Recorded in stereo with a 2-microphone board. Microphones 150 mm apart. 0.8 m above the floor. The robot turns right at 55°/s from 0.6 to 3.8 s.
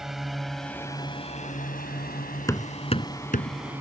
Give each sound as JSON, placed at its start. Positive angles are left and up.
{"t": 0.0, "sound": "a drone", "side_deg": 0}
{"t": 2.5, "sound": "hammering", "side_deg": 20}